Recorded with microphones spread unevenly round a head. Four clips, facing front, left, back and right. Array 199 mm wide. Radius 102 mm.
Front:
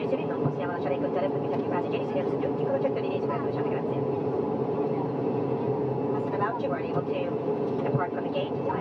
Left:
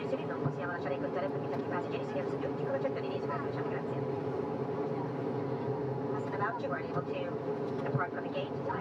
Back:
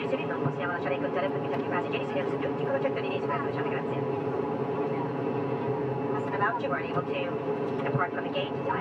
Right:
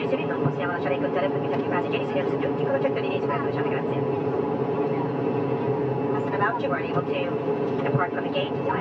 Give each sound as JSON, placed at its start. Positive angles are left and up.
{"t": 0.0, "sound": "an aircraft", "azimuth_deg": -85}